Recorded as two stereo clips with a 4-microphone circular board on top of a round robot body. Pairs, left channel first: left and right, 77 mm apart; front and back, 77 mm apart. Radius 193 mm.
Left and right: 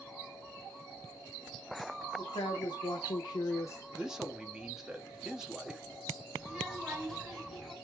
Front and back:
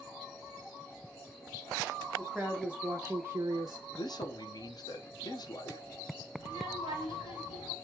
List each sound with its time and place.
2.2 s a woman speaking: 90° left, 1.1 m; by 3.8 s 150° left, 0.5 m
3.9 s a man speaking: 10° right, 1.2 m
6.4 s a child speaking: straight ahead, 3 m